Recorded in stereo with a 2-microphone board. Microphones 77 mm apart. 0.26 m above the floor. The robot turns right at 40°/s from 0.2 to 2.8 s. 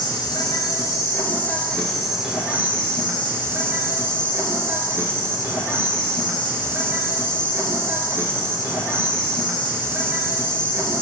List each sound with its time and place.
0.0 s an insect: 105° left, 0.8 m; by 11.0 s 150° right, 0.8 m